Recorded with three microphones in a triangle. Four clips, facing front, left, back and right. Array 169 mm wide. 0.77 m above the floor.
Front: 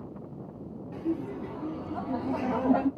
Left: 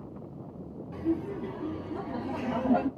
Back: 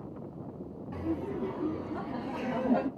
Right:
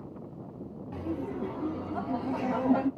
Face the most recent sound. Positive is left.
turn(degrees=0)